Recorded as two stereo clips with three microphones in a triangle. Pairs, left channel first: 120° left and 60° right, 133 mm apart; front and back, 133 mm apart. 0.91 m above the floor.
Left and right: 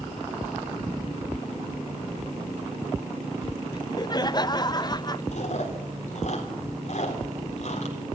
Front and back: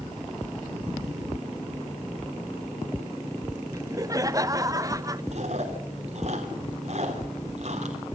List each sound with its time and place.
3.7 s laughter: 140° left, 0.6 m
5.3 s chewing: 150° left, 3.5 m